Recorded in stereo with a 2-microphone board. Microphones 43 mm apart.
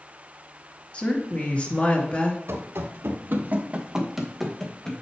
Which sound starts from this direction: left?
A woman speaking, at 0.9 s.